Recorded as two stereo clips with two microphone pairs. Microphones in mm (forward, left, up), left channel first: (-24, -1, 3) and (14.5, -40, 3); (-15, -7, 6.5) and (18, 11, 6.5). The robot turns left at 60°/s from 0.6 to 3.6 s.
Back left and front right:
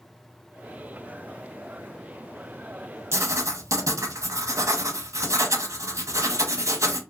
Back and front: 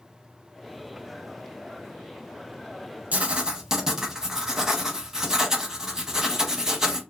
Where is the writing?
15° right, 0.6 m; by 7.0 s 45° right, 0.6 m.